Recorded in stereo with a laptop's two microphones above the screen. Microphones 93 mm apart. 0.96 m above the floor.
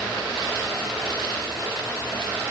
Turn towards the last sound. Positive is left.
No sound to turn to.